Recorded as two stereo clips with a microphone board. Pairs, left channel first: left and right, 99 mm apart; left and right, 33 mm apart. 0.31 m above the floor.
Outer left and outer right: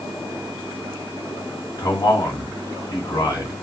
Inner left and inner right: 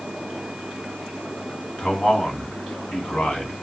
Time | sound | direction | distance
1.8 | a man speaking | 30° left (ahead or behind) | 2.5 m